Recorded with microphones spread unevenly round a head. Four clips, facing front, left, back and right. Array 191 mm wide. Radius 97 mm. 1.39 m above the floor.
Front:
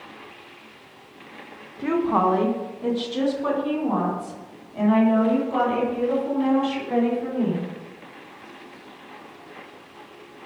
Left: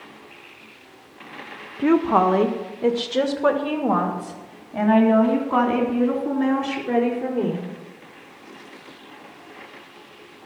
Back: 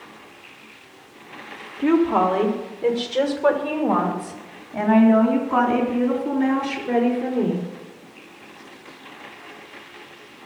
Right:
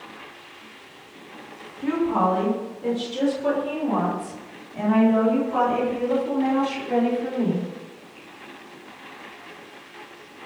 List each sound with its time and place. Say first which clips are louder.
1.8 s a woman speaking: left 5 dB, back 3 dB; 95° left, 1.6 m; by 7.7 s 130° left, 5.5 m